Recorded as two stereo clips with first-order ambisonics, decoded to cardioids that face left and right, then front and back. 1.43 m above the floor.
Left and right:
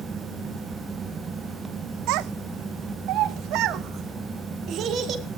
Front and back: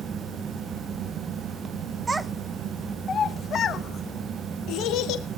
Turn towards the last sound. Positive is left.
turn(degrees=-40)